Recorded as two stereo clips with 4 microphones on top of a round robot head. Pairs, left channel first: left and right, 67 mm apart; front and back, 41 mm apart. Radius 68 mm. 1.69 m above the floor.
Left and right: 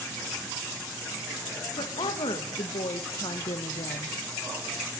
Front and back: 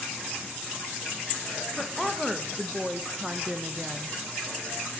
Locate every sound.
1.8 s a woman speaking: 85° left, 3 m; by 4.2 s 105° left, 2 m